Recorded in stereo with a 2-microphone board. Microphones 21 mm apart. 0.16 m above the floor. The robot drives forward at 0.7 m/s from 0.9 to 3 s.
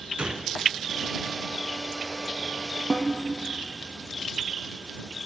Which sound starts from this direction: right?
A gunshot, at 0.2 s.